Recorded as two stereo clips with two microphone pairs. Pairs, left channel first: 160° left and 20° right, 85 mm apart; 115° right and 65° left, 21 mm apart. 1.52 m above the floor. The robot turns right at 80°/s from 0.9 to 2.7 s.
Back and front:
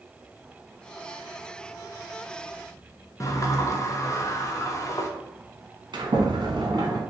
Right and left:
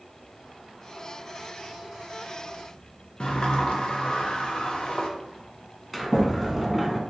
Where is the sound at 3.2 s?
155° right, 0.6 m.